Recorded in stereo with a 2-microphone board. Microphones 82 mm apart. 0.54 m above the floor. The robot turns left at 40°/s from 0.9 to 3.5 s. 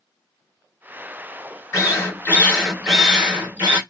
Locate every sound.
1.7 s a drill: 50° left, 1.6 m; by 3.8 s 20° right, 1.6 m